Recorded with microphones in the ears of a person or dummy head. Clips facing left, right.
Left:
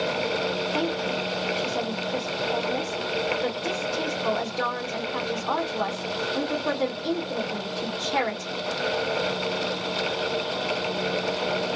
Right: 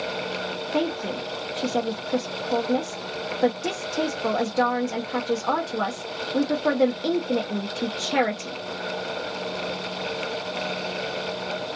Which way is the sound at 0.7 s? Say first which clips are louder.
Right 1 dB; 70° right (ahead or behind).